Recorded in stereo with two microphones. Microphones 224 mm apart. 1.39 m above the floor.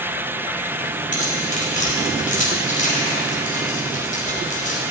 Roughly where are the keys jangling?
Left.